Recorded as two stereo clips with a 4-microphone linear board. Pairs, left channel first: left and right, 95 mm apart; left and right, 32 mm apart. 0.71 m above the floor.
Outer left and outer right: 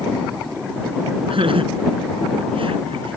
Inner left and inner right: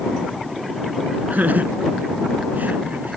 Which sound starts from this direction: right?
Laughter, at 1.3 s.